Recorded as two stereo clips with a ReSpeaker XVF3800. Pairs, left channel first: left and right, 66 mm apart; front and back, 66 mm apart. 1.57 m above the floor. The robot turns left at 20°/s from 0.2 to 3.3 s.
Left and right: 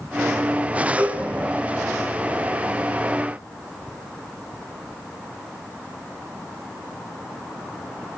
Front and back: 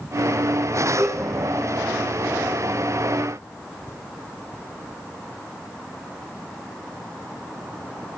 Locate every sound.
1.0 s a cowbell: 140° right, 2.5 m; by 1.2 s 145° right, 2.5 m